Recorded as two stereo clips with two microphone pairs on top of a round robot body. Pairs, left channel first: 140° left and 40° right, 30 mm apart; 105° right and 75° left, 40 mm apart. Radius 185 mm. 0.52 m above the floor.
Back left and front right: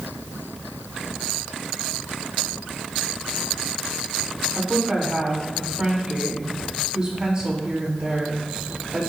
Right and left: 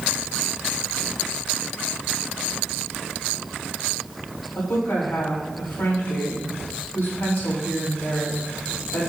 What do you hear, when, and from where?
4.5 s a woman speaking: 80° right, 2.5 m